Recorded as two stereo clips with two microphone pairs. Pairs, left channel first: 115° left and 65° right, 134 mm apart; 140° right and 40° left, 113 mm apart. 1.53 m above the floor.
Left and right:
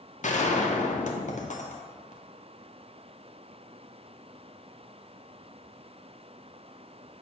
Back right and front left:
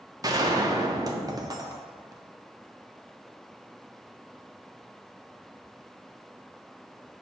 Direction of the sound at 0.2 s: 105° left.